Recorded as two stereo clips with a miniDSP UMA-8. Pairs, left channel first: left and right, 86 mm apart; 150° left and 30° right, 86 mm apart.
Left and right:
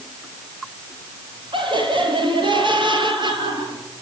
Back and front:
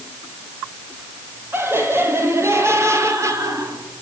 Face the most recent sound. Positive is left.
turn(degrees=-75)